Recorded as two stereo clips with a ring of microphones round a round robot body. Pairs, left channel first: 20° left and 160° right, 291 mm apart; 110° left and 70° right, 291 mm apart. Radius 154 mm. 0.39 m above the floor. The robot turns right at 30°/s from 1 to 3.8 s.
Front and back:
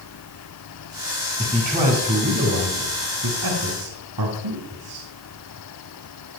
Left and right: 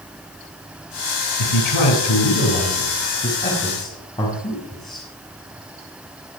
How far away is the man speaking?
About 6 m.